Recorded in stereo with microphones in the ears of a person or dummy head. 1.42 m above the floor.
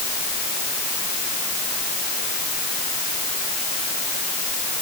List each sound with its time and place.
Only background noise.